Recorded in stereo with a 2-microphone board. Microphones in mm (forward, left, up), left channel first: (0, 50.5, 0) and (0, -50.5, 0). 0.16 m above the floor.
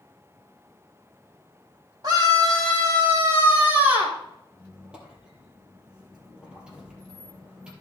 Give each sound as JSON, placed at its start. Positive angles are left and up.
{"t": 2.0, "sound": "a scream", "side_deg": -45, "distance_m": 6.0}
{"t": 4.5, "sound": "a squeak", "side_deg": -10, "distance_m": 3.5}